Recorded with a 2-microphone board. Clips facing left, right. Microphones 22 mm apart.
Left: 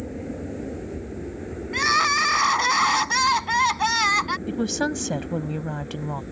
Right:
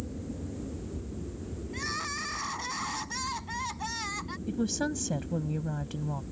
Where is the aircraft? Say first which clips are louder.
Left 7 dB; 60° left (ahead or behind); by 6.3 s 70° left (ahead or behind).